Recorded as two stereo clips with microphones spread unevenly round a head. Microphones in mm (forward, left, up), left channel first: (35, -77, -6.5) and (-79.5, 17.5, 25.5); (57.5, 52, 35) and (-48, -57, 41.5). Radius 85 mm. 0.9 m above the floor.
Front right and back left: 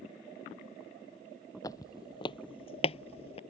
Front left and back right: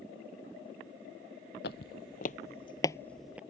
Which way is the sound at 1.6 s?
35° left.